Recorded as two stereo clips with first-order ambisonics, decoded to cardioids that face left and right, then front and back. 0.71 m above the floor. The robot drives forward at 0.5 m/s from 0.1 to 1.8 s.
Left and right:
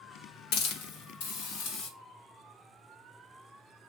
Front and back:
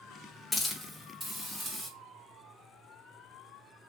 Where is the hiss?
85° left, 1.1 m; by 1.9 s 120° left, 1.2 m.